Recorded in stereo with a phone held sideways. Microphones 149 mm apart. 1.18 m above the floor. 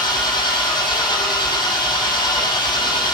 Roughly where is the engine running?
Left.